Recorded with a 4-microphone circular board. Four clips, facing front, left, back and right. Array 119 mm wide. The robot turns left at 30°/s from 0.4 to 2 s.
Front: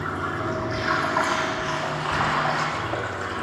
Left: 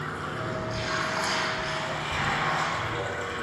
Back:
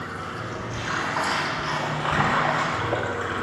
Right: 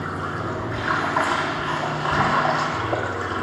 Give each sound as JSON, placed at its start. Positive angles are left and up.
{"t": 0.0, "sound": "running water", "azimuth_deg": -65, "distance_m": 1.8}